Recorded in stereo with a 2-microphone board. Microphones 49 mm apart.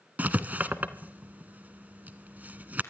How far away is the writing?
About 0.9 m.